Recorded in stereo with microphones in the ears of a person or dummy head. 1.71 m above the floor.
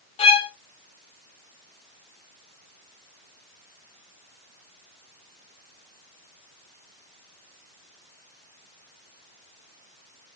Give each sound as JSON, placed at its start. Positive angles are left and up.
{"t": 0.2, "sound": "a violin", "side_deg": 30, "distance_m": 1.2}